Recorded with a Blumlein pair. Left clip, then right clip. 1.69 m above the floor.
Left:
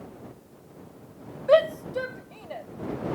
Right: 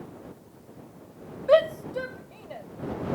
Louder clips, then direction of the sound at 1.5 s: Even; straight ahead.